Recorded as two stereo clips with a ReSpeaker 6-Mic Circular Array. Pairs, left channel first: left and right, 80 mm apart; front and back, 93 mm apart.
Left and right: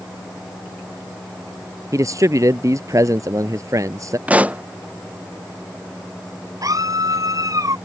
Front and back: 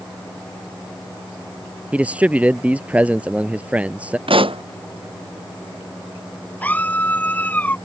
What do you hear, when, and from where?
1.9 s a man speaking: 110° right
4.3 s a pop: 160° right
6.6 s a scream: 65° right